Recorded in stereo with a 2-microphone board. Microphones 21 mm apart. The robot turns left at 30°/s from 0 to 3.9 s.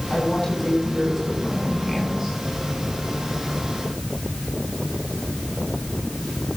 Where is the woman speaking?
40° left, 8 m; by 2.4 s 25° right, 8 m.